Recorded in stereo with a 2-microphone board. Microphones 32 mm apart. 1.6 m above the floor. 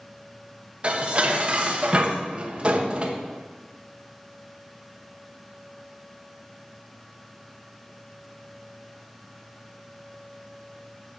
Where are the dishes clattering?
40° right (ahead or behind), 1.2 m.